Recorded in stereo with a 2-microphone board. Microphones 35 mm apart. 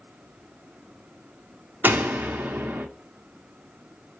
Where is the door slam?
70° right (ahead or behind), 0.9 m.